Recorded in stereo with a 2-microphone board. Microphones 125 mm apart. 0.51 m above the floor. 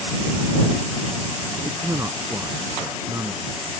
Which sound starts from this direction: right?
A man speaking, at 1.6 s.